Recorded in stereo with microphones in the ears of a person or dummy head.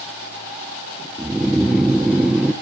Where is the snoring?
5° right (ahead or behind), 1.0 m.